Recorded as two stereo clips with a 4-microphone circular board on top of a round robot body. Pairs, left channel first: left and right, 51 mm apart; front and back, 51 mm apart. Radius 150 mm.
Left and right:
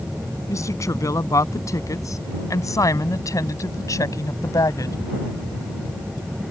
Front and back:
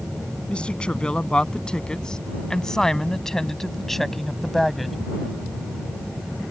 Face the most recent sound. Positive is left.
turn(degrees=90)